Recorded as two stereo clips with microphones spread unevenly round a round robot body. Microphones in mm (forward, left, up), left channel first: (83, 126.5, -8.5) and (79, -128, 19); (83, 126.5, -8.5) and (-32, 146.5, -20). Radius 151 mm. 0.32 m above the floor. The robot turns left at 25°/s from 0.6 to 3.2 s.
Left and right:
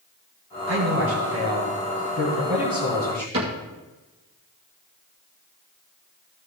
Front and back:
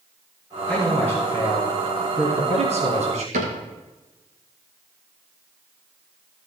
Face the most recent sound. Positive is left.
turn(degrees=-165)